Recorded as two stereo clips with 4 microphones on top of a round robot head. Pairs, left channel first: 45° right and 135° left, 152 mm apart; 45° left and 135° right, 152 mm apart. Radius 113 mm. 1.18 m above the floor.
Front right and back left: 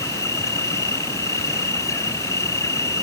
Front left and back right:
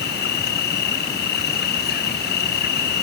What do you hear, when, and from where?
0.0 s an insect: 25° left